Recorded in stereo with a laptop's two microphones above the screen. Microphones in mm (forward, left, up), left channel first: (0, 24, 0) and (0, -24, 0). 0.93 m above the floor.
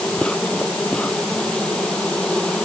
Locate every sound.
0.0 s an insect: 20° left (ahead or behind)